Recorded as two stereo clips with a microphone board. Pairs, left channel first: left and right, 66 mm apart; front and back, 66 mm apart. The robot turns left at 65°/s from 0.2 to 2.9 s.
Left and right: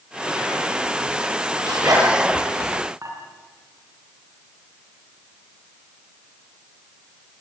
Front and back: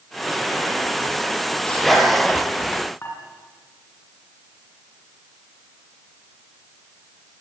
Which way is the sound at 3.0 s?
55° right.